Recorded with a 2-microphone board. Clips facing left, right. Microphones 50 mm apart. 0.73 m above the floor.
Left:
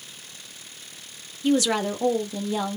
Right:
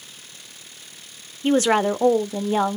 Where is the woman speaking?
35° right (ahead or behind), 0.7 m.